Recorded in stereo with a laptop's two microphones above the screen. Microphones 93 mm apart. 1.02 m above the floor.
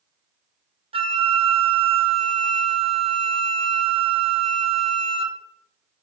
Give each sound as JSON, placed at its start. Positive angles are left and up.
{"t": 0.9, "sound": "a flute", "side_deg": -75, "distance_m": 0.6}